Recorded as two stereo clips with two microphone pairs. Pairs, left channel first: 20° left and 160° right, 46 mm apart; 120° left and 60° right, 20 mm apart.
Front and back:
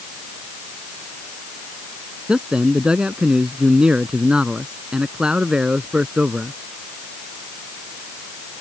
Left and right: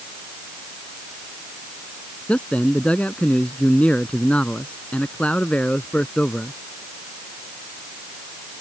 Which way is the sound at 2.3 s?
130° left.